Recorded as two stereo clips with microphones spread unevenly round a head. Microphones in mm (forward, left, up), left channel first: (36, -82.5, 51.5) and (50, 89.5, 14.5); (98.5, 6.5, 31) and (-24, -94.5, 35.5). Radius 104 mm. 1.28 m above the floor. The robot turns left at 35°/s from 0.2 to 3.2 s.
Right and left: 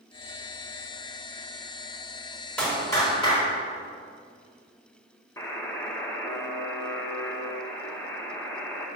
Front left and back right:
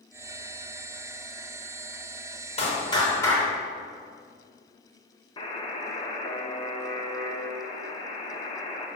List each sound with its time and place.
2.6 s a clap: 15° right, 4.5 m; by 3.4 s 35° right, 4.5 m
5.4 s a buzzer: 20° right, 2.0 m